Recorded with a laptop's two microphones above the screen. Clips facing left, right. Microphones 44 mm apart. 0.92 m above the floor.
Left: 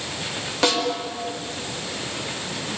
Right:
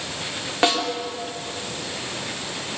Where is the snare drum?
20° right (ahead or behind), 2.5 m.